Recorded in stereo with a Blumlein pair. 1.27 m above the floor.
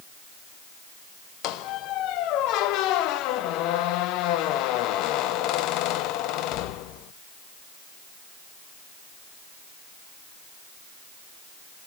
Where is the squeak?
40° left, 0.6 m.